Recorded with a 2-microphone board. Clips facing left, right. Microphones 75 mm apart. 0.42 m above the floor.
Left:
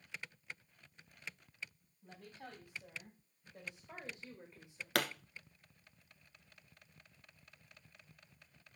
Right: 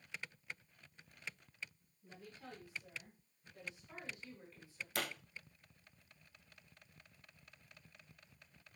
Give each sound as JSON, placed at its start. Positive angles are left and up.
{"t": 2.0, "sound": "a woman speaking", "side_deg": 50, "distance_m": 3.0}
{"t": 5.0, "sound": "a pop", "side_deg": 65, "distance_m": 1.2}